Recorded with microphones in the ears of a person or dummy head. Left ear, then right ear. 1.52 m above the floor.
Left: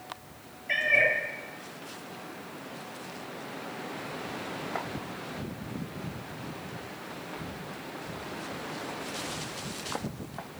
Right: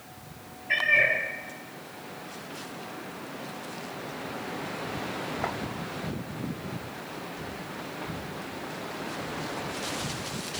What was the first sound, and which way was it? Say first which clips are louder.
A cat meowing: right 2 dB; 65° left (ahead or behind).